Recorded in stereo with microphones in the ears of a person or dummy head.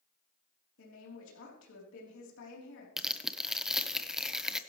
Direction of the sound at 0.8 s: 80° left.